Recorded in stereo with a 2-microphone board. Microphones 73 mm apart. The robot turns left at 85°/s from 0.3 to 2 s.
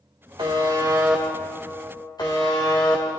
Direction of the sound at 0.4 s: 100° right.